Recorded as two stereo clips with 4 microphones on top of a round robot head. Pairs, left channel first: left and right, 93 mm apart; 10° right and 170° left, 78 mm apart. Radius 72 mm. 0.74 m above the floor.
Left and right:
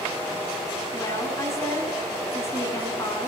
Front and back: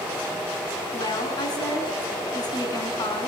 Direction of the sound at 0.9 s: 30° left.